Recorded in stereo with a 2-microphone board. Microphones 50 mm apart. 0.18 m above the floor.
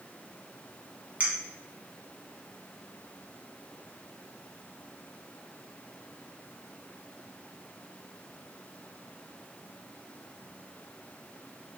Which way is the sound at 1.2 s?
30° right (ahead or behind).